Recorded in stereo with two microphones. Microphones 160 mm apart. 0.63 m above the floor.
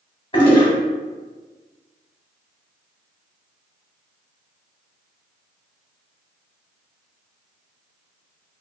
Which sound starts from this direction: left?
A toilet flushing, at 0.3 s.